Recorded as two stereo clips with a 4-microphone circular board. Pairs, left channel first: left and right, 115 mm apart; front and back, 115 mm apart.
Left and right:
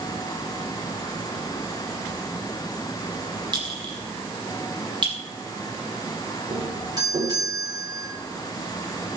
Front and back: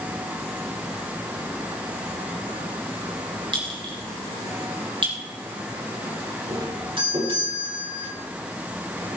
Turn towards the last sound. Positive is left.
turn(degrees=-145)